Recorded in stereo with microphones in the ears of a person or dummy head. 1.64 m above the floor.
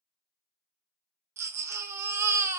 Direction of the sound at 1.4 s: 15° right (ahead or behind).